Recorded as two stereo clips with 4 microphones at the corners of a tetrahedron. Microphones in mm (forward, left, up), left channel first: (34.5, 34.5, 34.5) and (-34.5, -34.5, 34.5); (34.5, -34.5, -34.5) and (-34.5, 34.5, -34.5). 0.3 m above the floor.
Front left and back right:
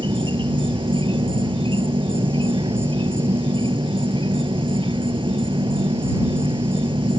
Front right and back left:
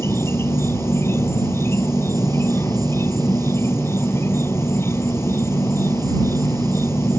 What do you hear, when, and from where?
0.0 s an insect: 105° right